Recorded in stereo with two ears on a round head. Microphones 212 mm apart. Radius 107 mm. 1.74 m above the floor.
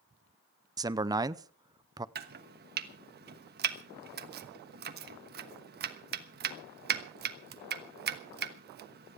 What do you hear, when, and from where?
0.8 s a man speaking: 15° right (ahead or behind), 0.6 m
2.1 s chopping: 45° right (ahead or behind), 1.2 m